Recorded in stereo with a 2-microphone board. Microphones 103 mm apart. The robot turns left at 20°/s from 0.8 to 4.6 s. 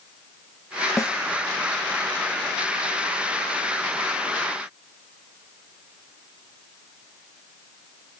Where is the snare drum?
30° left (ahead or behind), 1.0 m; by 1.2 s 25° left (ahead or behind), 1.0 m.